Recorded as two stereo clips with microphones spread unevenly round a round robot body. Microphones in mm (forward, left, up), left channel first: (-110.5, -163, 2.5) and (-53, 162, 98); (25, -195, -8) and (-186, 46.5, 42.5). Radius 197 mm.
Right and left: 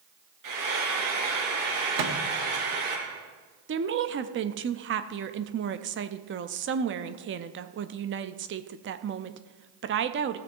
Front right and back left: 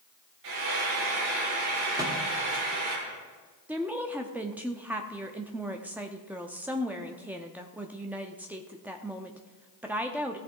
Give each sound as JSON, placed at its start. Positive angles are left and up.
{"t": 0.4, "sound": "frying", "azimuth_deg": 105, "distance_m": 5.0}
{"t": 2.0, "sound": "a microwave", "azimuth_deg": 45, "distance_m": 1.3}
{"t": 3.7, "sound": "a woman speaking", "azimuth_deg": 35, "distance_m": 0.6}